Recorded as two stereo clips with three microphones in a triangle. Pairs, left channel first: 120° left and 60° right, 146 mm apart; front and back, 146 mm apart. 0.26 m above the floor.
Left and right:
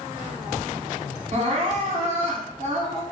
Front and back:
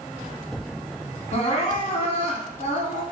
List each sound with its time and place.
1.3 s crying: 35° right, 1.1 m